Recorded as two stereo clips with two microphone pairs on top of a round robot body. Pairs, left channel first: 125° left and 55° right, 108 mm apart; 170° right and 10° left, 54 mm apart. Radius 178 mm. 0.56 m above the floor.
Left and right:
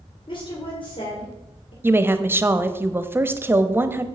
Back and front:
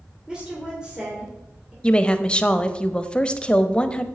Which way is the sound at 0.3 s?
85° left.